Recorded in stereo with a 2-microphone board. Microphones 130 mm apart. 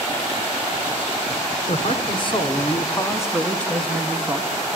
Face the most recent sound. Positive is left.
turn(degrees=-15)  # may be behind; listen again after turning